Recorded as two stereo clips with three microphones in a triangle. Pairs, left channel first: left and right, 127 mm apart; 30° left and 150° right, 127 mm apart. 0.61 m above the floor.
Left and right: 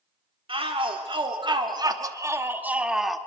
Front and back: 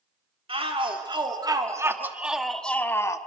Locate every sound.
0.5 s a shout: 120° right, 1.7 m; by 3.2 s straight ahead, 1.1 m